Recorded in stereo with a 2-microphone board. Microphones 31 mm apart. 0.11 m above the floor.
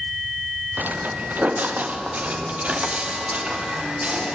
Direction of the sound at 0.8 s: 75° right (ahead or behind).